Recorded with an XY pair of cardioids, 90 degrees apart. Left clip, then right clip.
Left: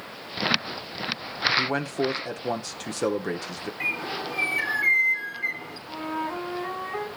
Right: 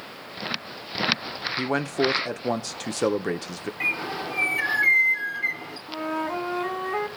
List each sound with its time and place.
1.6 s a man speaking: 25° right, 1.0 m
3.8 s a bird: 15° right, 3 m
5.9 s a flute: 70° right, 3.5 m